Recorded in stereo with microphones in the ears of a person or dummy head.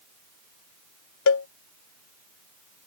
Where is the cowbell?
75° left (ahead or behind).